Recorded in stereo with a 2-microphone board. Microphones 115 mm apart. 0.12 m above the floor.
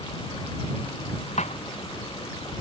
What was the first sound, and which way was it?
A thud, 85° left.